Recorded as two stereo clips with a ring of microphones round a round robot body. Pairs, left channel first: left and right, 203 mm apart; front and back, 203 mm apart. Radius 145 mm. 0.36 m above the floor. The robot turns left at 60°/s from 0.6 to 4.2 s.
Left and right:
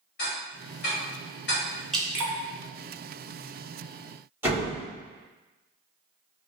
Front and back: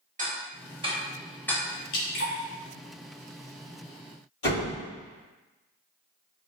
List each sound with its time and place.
0.2 s ticking: 135° left, 0.9 m; by 1.6 s 70° left, 0.9 m
1.9 s dripping: 5° left, 0.8 m; by 2.3 s 20° right, 0.8 m
4.4 s a door slam: 15° right, 1.7 m